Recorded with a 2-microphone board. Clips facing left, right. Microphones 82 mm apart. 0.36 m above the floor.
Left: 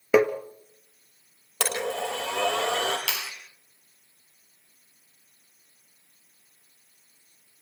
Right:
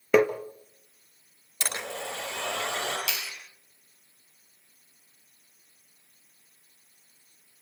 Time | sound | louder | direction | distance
0.1 | tapping | left 1 dB | 5° left (ahead or behind) | 1.3 m
1.6 | a blender | left 7 dB | 75° left (ahead or behind) | 7.5 m
3.1 | a clap | left 2 dB | 70° left (ahead or behind) | 3 m